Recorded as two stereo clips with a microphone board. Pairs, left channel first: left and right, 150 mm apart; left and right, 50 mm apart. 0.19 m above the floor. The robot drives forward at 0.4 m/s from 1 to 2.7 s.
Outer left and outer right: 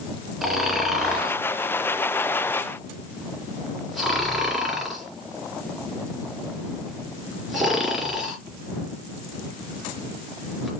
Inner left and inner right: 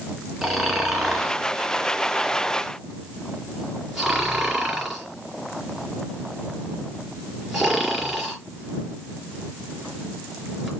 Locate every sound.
0.4 s snoring: centre (ahead or behind), 3 m